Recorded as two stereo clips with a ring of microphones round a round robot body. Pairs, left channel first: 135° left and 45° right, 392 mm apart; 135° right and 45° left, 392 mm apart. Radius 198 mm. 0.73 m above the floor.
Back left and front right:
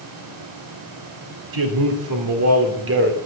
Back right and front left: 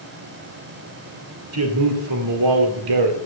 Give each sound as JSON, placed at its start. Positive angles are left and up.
{"t": 1.5, "sound": "a man speaking", "azimuth_deg": -10, "distance_m": 2.0}